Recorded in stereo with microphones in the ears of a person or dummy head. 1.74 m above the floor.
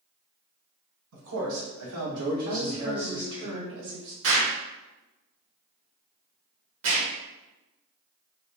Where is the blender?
No blender in this recording.